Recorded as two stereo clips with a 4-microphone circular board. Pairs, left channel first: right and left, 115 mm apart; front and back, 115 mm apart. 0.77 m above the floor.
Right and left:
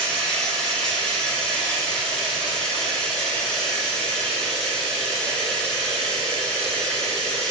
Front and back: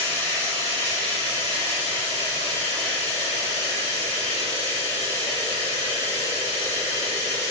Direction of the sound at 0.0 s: 10° right.